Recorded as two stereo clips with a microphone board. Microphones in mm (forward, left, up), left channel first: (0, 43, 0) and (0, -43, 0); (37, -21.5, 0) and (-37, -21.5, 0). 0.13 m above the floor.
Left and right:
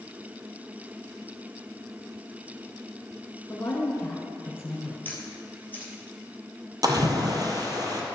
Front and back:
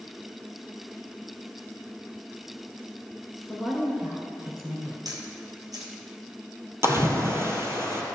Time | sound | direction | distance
3.5 | a woman speaking | 95° left | 1.3 m
5.0 | a camera shutter | 155° left | 1.9 m
6.8 | a splash | 130° right | 1.4 m